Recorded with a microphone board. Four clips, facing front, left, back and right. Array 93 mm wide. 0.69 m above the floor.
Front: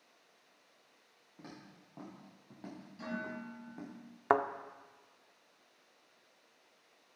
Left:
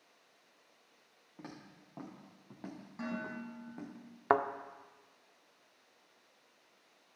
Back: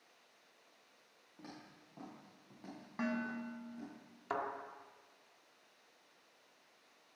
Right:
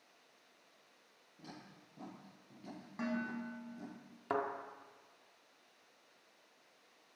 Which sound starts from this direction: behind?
Dishes clattering, at 3.0 s.